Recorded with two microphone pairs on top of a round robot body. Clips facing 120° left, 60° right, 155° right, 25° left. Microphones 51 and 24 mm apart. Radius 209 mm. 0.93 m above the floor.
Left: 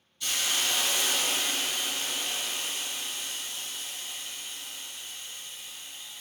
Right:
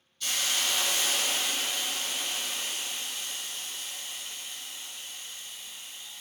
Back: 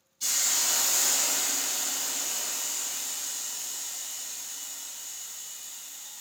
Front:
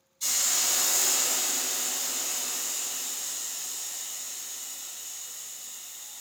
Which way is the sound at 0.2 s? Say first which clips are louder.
Even, even; 165° right.